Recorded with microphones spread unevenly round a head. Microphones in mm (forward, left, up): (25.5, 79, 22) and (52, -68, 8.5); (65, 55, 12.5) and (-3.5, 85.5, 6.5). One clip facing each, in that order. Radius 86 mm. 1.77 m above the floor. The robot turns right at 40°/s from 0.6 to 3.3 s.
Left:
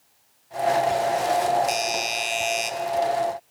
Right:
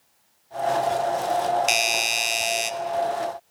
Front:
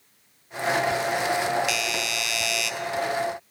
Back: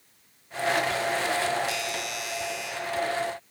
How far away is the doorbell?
About 0.6 m.